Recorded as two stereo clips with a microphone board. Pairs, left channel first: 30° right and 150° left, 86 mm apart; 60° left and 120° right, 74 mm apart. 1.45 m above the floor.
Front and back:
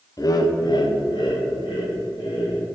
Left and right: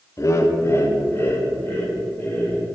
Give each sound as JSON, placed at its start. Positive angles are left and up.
{"t": 0.2, "sound": "laughter", "azimuth_deg": 15, "distance_m": 0.6}